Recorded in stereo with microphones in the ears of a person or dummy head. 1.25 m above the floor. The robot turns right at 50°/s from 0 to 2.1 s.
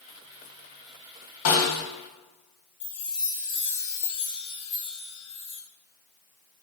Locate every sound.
1.4 s a snare drum: 70° left (ahead or behind), 1.1 m; by 1.8 s 80° left, 1.1 m
2.8 s a chime: 55° left (ahead or behind), 0.7 m